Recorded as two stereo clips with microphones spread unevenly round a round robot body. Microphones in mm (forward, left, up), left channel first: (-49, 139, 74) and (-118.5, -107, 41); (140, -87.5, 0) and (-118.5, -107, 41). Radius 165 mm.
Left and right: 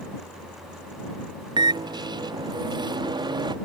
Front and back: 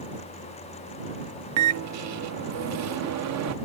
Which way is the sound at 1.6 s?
175° right.